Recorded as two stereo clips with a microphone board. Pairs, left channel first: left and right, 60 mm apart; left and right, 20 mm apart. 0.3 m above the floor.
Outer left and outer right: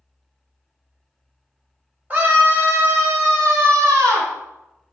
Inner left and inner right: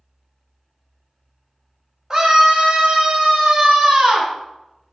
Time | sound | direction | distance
2.1 | a scream | 30° right (ahead or behind) | 1.3 m